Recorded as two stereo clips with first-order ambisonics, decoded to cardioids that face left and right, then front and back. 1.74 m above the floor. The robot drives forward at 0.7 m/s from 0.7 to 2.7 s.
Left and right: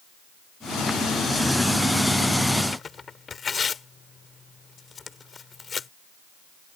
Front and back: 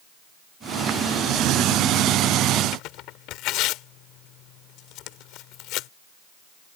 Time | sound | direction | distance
2.7 | tearing paper | 20° left | ?